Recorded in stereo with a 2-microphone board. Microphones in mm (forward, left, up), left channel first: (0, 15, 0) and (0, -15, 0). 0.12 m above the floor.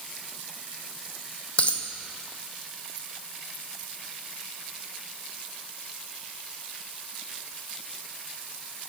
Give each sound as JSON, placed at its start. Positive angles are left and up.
{"t": 1.6, "sound": "a dropped coin", "side_deg": 45, "distance_m": 0.7}